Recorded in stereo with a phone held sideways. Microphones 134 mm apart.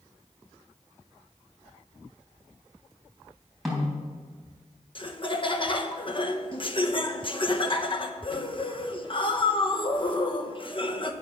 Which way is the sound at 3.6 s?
Centre (ahead or behind).